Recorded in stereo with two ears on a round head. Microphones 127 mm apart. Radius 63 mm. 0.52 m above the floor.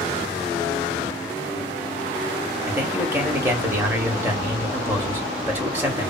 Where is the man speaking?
15° right (ahead or behind), 1.0 m.